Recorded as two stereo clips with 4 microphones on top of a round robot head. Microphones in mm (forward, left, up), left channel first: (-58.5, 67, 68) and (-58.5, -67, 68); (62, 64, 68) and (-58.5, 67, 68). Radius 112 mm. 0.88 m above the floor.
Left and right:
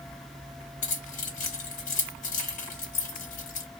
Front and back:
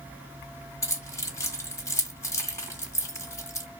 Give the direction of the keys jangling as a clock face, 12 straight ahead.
10 o'clock.